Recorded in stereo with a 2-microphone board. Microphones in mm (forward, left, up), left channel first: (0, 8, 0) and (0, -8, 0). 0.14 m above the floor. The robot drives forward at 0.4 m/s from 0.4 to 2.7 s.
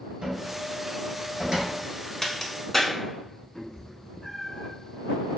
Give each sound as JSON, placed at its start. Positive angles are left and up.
{"t": 0.2, "sound": "a cupboard door", "side_deg": -55, "distance_m": 1.5}
{"t": 2.2, "sound": "a crack", "side_deg": 15, "distance_m": 0.5}
{"t": 3.5, "sound": "a cat meowing", "side_deg": 30, "distance_m": 0.7}